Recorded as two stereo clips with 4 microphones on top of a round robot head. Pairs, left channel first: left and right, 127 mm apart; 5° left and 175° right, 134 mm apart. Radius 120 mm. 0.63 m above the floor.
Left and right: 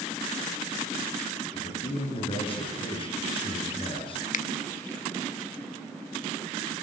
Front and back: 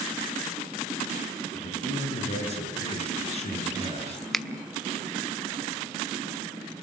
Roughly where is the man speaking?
Ahead left.